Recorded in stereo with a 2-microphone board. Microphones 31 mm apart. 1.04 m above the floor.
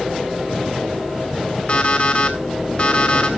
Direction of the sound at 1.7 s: 40° left (ahead or behind).